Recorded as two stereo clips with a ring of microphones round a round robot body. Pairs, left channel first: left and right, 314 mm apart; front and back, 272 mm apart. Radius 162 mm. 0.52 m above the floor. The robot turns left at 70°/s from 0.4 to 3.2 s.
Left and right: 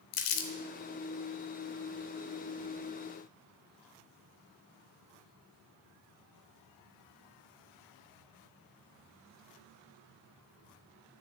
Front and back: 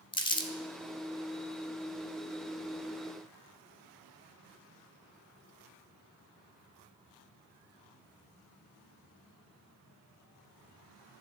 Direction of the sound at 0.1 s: 75° left.